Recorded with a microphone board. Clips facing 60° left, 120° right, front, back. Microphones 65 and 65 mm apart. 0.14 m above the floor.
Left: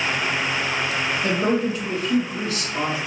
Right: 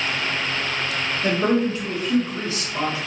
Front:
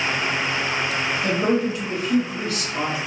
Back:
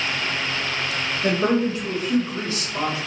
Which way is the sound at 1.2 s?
145° right.